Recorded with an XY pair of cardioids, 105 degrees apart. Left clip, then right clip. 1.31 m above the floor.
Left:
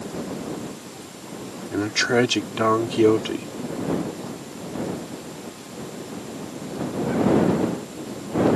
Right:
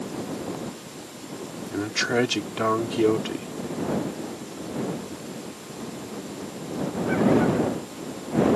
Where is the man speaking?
20° left.